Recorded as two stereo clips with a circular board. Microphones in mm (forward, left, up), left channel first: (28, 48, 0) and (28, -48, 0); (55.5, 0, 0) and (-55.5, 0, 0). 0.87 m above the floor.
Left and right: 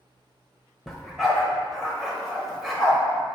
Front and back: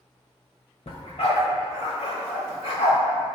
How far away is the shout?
I don't hear a shout.